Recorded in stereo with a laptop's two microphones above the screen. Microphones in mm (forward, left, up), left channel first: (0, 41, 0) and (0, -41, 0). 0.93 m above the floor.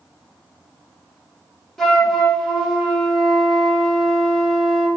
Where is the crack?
I don't hear a crack.